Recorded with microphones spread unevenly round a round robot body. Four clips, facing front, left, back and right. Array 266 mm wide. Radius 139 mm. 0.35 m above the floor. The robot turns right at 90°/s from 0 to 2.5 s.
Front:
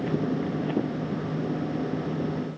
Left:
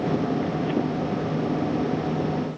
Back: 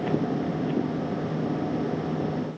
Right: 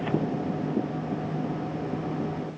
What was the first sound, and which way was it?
Only background noise.